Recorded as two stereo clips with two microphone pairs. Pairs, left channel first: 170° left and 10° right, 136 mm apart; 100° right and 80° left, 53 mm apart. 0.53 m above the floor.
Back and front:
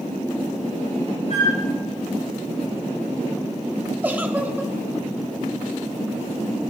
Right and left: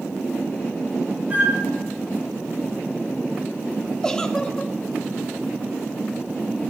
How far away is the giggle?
About 0.9 m.